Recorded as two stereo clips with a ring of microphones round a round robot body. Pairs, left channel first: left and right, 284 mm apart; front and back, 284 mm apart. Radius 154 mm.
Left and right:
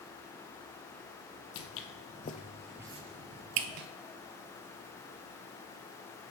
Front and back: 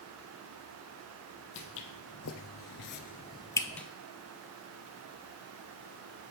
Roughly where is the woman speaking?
No woman speaking in this recording.